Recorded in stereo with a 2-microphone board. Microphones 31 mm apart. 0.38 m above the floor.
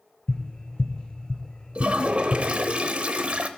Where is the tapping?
30° left (ahead or behind), 1.2 m.